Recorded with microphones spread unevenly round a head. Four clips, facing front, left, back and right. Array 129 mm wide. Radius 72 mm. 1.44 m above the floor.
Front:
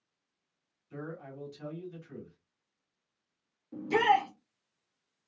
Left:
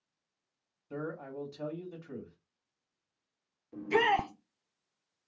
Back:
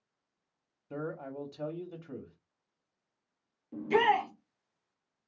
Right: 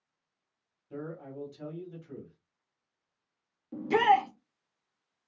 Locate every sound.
0.9 s a man speaking: 160° left, 1.3 m
3.7 s a shout: 100° right, 1.3 m